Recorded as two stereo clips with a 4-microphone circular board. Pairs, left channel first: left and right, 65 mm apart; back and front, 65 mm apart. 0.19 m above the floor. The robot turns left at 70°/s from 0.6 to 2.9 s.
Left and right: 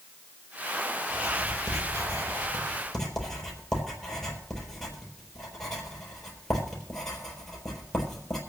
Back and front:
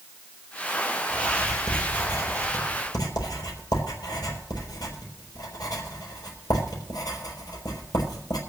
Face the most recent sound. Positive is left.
turn(degrees=175)